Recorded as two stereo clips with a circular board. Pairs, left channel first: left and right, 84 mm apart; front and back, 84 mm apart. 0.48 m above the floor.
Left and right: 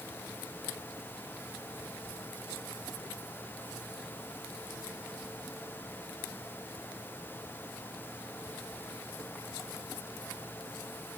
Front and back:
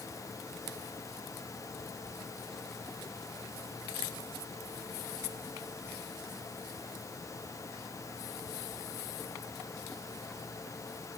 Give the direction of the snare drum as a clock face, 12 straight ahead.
I don't hear a snare drum.